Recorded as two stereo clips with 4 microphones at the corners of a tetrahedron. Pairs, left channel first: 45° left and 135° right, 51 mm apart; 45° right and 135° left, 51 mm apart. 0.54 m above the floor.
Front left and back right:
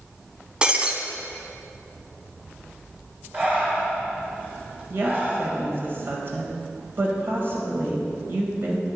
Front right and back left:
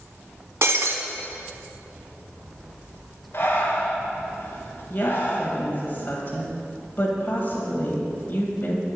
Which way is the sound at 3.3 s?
80° right.